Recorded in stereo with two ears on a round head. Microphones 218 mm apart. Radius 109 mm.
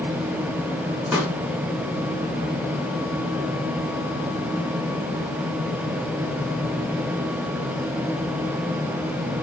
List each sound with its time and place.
1.1 s a pop: 5° right (ahead or behind), 7 m